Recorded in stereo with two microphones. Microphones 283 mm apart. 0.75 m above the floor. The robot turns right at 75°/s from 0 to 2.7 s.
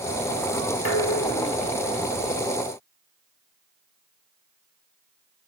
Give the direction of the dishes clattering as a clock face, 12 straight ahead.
10 o'clock.